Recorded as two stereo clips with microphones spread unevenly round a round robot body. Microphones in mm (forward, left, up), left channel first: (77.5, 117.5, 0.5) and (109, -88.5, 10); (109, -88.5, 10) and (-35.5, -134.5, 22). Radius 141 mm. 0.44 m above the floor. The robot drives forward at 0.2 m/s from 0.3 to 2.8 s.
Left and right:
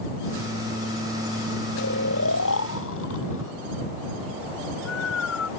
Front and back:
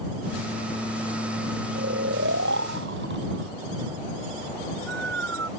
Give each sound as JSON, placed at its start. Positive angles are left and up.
{"t": 1.8, "sound": "snoring", "azimuth_deg": 150}